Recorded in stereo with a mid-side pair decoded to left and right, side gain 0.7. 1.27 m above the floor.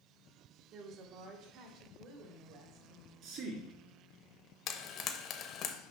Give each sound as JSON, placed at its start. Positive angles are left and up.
{"t": 0.7, "sound": "a woman speaking", "azimuth_deg": -60, "distance_m": 1.6}
{"t": 3.2, "sound": "a man speaking", "azimuth_deg": -55, "distance_m": 3.0}
{"t": 4.7, "sound": "frying", "azimuth_deg": 40, "distance_m": 1.0}